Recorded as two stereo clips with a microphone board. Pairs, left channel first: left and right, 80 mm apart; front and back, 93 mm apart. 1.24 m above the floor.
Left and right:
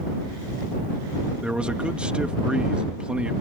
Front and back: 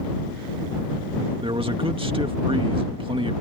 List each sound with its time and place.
1.4 s a man speaking: 165° right